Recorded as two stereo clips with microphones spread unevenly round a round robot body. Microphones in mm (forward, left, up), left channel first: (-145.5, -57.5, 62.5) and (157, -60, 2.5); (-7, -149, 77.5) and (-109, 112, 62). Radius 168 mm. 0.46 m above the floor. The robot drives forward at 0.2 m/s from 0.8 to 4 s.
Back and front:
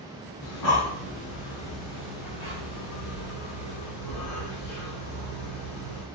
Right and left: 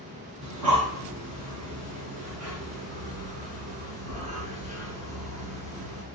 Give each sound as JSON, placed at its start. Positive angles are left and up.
{"t": 0.4, "sound": "breathing", "azimuth_deg": 140, "distance_m": 2.5}